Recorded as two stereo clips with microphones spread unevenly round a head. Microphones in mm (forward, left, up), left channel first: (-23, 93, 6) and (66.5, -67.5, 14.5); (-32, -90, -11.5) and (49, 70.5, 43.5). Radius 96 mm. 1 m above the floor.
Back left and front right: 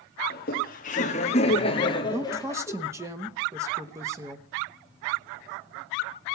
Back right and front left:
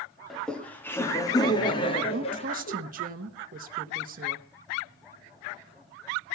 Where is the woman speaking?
15° left, 1.3 m.